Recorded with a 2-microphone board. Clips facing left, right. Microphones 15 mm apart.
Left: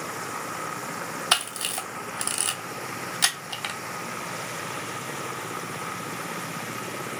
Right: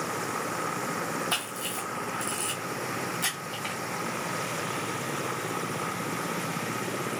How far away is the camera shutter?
About 0.7 m.